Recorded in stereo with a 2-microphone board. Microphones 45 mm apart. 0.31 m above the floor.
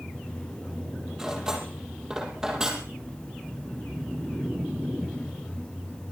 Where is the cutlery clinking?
15° right (ahead or behind), 6 m.